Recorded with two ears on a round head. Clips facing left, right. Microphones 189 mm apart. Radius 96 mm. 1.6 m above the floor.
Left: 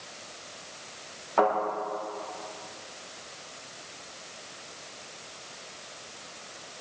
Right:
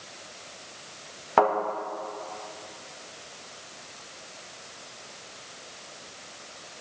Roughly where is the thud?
Right.